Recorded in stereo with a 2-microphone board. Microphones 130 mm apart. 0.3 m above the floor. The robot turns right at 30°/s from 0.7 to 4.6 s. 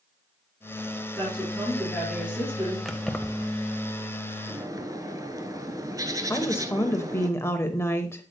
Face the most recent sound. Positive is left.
turn(degrees=20)  # may be behind; listen again after turning